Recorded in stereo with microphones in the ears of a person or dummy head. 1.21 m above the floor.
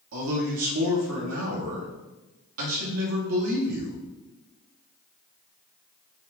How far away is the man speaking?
About 2 m.